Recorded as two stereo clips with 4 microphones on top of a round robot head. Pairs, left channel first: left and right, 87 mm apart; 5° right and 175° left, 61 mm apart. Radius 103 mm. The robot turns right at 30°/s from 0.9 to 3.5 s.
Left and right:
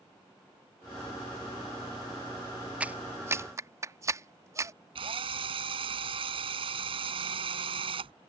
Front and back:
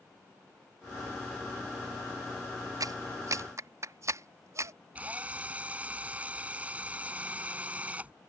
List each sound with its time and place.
2.8 s a clap: 165° right; by 4.7 s 145° right
5.0 s a drill: 110° right